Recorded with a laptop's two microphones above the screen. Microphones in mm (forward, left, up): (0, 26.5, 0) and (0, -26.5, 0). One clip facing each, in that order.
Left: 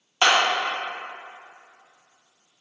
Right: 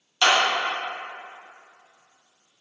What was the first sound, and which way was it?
A clap, 25° left (ahead or behind).